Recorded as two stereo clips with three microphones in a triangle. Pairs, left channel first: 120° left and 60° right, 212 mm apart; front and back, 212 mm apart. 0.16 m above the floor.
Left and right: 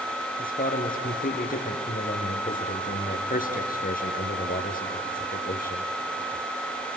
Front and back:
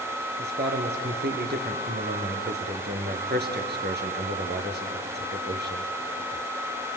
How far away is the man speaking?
About 3 m.